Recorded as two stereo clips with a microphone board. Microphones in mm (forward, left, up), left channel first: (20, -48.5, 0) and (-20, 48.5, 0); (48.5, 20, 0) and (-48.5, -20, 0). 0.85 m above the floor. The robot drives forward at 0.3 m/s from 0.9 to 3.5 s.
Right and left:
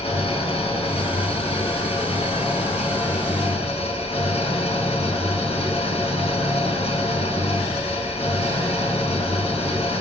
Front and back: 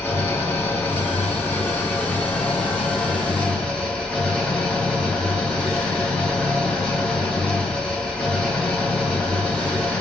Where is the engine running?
50° right, 4 m; by 10.0 s 60° right, 3.5 m.